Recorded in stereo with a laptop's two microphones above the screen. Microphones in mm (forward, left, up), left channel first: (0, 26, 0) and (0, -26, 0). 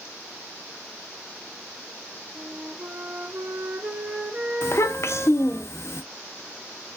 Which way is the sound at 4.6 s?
60° left (ahead or behind).